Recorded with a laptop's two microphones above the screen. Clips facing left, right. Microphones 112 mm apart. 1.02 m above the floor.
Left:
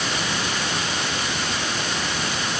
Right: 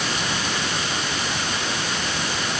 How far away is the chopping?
I don't hear chopping.